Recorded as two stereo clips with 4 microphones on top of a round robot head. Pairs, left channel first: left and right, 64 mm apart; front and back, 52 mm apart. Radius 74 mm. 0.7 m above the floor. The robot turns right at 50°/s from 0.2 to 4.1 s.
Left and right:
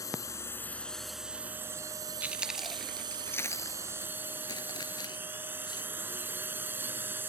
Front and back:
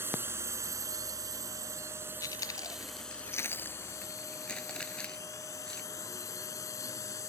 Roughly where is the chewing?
Ahead.